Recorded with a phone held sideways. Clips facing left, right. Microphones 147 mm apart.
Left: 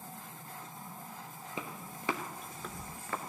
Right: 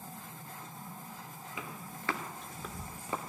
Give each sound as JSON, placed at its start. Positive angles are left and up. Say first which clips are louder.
{"t": 1.6, "sound": "footsteps", "louder": "left 2 dB", "side_deg": 35, "distance_m": 1.2}